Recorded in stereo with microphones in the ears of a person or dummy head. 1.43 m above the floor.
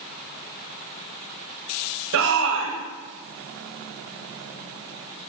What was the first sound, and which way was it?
A shout, 75° right (ahead or behind).